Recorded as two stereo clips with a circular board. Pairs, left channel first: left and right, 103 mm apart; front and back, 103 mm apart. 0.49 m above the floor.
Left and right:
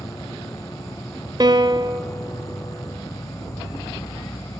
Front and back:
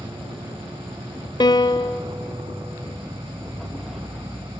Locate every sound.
0.0 s an insect: 145° left, 0.8 m
1.4 s a piano: 45° right, 0.6 m